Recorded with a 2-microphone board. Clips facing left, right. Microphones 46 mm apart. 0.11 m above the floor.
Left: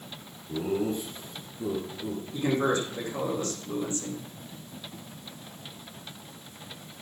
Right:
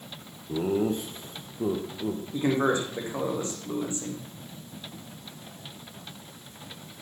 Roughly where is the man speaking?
Right.